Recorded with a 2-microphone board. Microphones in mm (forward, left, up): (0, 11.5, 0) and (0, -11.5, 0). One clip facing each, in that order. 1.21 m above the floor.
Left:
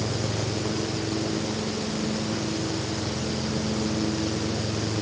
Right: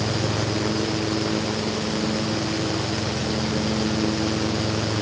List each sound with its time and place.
Only background noise.